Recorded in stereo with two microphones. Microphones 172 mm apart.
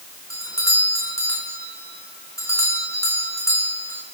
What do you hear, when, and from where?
0.3 s a doorbell: 15° left (ahead or behind), 6 m